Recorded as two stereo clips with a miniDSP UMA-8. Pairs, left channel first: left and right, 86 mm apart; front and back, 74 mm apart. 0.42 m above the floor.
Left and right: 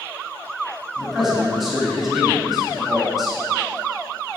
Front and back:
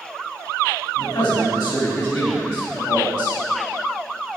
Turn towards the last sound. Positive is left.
turn(degrees=-5)